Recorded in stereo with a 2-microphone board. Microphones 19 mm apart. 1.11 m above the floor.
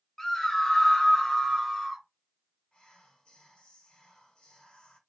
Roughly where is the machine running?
I don't hear a machine running.